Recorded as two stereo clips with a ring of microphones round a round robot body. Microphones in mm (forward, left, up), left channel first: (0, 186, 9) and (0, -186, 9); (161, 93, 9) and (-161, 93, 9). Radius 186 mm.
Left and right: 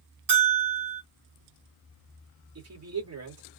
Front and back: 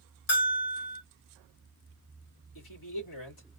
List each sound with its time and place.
0.3 s a bell: 50° right, 2.5 m
2.5 s a man speaking: 40° right, 2.0 m